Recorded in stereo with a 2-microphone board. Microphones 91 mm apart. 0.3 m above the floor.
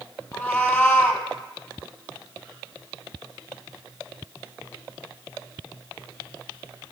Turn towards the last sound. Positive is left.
turn(degrees=10)  # may be behind; listen again after turning